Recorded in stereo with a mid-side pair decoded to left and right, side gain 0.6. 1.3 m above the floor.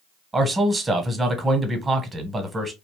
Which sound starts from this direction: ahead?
A man speaking, at 0.3 s.